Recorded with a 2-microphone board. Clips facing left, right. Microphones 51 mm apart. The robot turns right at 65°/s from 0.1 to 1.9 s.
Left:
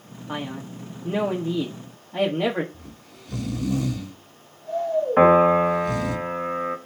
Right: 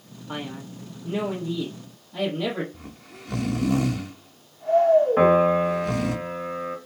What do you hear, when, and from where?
0.3 s a man speaking: 25° left, 1.4 m; by 2.6 s 130° left, 1.4 m
2.7 s snoring: 70° right (ahead or behind), 1.0 m
5.2 s a piano: 30° left (ahead or behind), 2 m